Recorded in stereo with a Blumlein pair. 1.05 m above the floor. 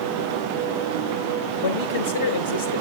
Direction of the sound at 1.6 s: 70° left.